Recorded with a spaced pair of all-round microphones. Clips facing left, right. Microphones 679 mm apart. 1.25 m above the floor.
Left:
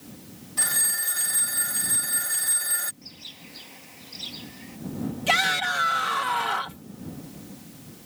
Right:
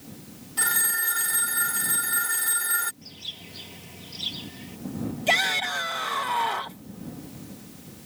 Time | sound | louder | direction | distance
0.6 | a phone ringing | right 2 dB | 5° left (ahead or behind) | ?
3.0 | a bird | right 1 dB | 55° right (ahead or behind) | ?
5.3 | a shout | even | 40° left (ahead or behind) | ?